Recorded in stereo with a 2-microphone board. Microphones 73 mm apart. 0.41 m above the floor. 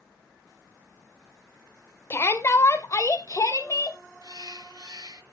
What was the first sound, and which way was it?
A shout, 35° left (ahead or behind).